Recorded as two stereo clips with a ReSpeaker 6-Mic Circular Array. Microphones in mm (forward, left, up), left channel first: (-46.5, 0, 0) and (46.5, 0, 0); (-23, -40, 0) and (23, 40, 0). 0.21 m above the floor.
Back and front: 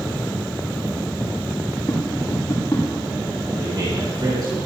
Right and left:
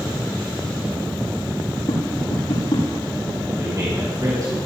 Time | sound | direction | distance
1.9 | tapping | 120° right | 6 m
3.6 | a man speaking | 25° left | 3.5 m